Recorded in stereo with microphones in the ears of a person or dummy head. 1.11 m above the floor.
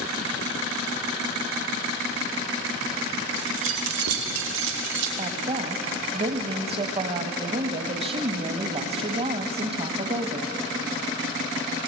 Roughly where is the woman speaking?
Right.